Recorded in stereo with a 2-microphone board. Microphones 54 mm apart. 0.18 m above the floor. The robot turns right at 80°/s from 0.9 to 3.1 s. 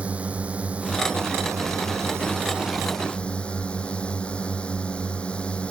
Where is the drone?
155° right; by 5.7 s 20° left.